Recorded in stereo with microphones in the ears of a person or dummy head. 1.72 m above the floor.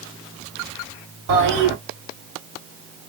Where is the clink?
No clink in this recording.